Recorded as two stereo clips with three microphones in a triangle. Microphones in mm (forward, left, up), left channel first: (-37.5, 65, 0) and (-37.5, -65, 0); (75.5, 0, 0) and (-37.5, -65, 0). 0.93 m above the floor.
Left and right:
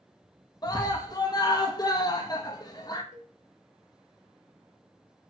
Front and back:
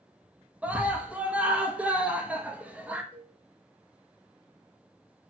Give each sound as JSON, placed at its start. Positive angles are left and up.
{"t": 0.6, "sound": "a scream", "azimuth_deg": 135, "distance_m": 0.8}
{"t": 3.1, "sound": "a cowbell", "azimuth_deg": 75, "distance_m": 0.7}